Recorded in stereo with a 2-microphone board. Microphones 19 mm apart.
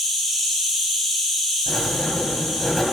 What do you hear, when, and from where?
0.0 s an insect: 25° left (ahead or behind), 5 m
1.7 s writing: 30° left (ahead or behind), 2.5 m